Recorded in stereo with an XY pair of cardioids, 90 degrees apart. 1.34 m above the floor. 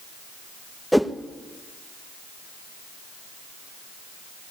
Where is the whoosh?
Straight ahead, 1.3 m.